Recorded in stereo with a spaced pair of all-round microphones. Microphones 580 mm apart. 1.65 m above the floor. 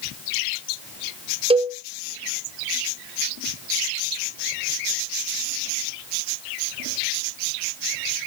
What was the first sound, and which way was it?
A cowbell, 10° right (ahead or behind).